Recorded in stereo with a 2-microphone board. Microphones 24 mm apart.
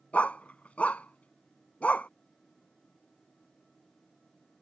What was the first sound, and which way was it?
A dog barking, 75° left (ahead or behind).